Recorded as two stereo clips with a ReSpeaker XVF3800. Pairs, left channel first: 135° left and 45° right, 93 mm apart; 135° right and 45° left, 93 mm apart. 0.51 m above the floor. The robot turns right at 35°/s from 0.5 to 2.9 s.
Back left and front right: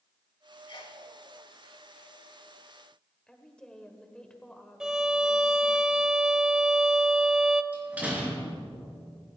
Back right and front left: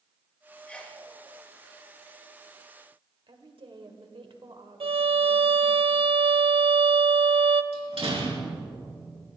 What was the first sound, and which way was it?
A sneeze, 145° left.